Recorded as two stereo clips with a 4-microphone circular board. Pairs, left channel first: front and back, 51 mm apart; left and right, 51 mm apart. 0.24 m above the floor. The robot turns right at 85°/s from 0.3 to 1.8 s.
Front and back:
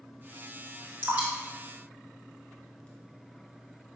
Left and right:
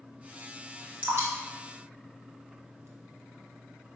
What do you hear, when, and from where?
1.0 s dripping: 135° right, 0.7 m; by 2.9 s 70° right, 0.7 m